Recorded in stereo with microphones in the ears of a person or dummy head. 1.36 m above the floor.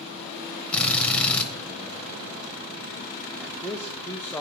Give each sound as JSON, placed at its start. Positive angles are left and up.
{"t": 0.7, "sound": "a drill", "side_deg": 10, "distance_m": 0.8}
{"t": 3.4, "sound": "a man speaking", "side_deg": 5, "distance_m": 0.5}